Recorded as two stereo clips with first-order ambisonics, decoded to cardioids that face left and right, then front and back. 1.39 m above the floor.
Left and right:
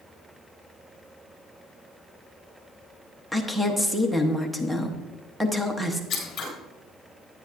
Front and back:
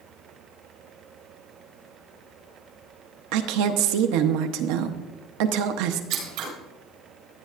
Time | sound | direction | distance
3.3 | a woman speaking | 175° right | 0.9 m
6.1 | scissors | 155° left | 4.5 m